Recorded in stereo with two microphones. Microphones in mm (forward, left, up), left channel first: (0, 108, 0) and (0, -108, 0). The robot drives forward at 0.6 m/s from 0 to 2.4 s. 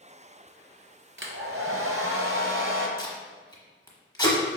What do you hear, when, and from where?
1.2 s a hair dryer: 65° right (ahead or behind), 0.8 m; by 2.9 s 60° right (ahead or behind), 0.8 m
3.0 s tape being pulled: 20° left (ahead or behind), 1.1 m